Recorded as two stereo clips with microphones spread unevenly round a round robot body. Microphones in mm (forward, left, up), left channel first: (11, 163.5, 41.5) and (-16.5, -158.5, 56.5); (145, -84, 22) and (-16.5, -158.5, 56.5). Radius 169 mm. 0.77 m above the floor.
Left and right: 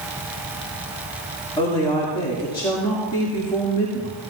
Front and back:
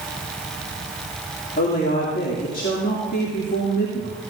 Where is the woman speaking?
10° left, 2 m.